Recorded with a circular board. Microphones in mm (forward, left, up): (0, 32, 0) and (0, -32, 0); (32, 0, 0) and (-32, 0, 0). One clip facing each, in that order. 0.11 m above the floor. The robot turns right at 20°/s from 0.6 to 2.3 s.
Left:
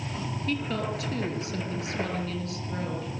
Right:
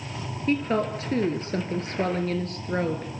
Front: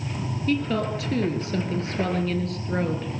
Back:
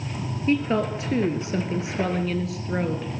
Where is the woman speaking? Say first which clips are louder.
Right 7 dB, back 2 dB; 135° right, 1.5 m; by 3.1 s 100° right, 1.5 m.